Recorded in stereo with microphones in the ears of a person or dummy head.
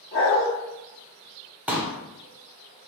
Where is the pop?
5° right (ahead or behind), 0.7 m.